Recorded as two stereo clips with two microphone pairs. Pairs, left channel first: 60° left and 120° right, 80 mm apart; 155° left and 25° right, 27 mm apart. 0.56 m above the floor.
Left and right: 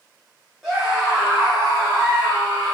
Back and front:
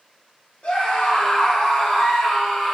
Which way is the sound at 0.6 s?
155° left.